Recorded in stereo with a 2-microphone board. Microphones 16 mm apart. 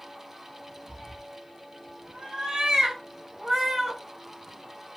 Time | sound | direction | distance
0.9 | a cat meowing | 50° right (ahead or behind) | 1.0 m